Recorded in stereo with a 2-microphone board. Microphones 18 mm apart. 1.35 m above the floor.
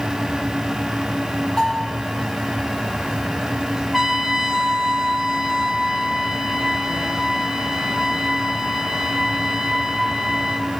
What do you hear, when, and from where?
1.6 s a bell: 60° left (ahead or behind), 9 m
3.9 s a trumpet: 15° right (ahead or behind), 1.2 m